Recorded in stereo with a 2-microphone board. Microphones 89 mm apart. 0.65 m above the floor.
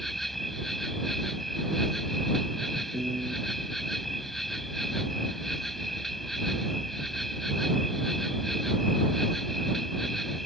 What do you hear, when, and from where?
0.0 s an insect: centre (ahead or behind)
2.9 s a piano: 60° right (ahead or behind)